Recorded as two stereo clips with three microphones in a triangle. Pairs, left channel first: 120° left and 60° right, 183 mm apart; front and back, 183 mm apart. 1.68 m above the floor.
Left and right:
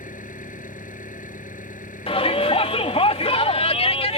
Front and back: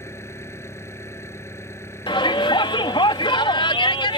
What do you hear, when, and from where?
0.0 s an engine running: 75° left
2.1 s a shout: 65° left